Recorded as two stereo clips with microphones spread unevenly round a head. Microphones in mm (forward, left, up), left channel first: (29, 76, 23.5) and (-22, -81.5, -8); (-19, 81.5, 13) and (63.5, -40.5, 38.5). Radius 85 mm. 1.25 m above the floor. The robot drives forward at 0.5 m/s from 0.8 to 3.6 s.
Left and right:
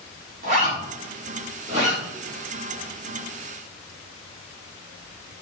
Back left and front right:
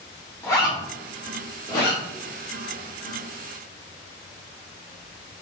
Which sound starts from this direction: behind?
A zipper, at 0.4 s.